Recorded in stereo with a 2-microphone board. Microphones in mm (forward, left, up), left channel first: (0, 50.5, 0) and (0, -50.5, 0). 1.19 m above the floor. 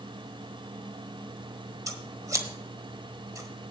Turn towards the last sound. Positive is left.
turn(degrees=-35)  # may be behind; listen again after turning